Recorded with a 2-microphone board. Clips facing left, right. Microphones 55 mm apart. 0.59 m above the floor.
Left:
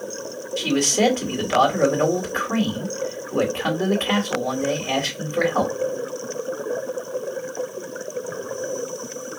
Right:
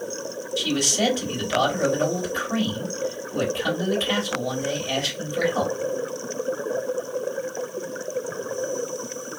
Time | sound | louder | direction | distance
0.6 | a man speaking | left 4 dB | 40° left (ahead or behind) | 2 m